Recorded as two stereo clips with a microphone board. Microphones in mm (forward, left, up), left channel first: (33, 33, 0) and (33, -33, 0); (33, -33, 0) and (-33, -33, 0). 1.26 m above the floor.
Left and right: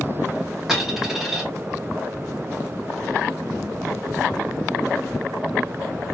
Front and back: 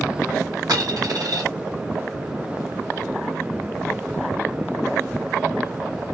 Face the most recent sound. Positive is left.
turn(degrees=-175)